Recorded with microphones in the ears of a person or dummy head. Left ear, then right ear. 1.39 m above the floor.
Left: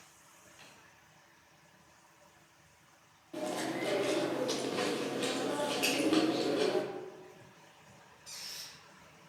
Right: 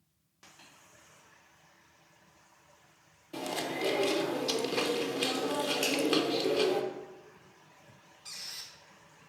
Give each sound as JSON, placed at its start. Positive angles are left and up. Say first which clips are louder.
{"t": 0.6, "sound": "tapping", "louder": "left 1 dB", "side_deg": 5, "distance_m": 2.5}
{"t": 3.3, "sound": "chewing", "louder": "right 1 dB", "side_deg": -25, "distance_m": 0.7}
{"t": 5.8, "sound": "a finger snap", "louder": "left 1 dB", "side_deg": -20, "distance_m": 2.5}
{"t": 8.2, "sound": "a squeak", "louder": "right 2 dB", "side_deg": -35, "distance_m": 0.9}